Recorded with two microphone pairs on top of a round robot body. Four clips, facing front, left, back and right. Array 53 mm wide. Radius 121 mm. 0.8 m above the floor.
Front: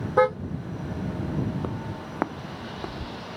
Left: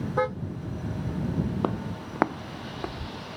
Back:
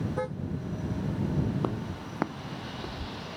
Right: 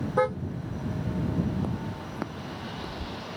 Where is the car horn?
5° left.